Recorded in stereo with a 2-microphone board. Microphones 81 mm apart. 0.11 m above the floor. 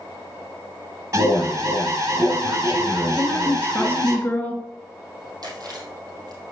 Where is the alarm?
40° right (ahead or behind), 4 m.